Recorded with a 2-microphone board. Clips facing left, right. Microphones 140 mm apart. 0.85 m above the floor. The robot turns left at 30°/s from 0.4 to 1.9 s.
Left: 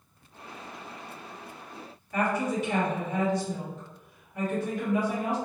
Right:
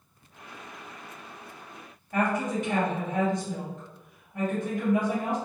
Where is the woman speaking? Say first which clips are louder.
Right 1 dB; 50° right (ahead or behind), 1.5 m.